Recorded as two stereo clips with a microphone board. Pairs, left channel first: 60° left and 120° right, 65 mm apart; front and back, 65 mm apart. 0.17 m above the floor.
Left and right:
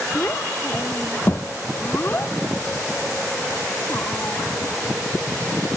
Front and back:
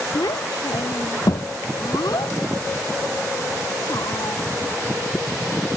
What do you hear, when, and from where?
0.1 s a child speaking: 10° left; by 4.4 s 5° left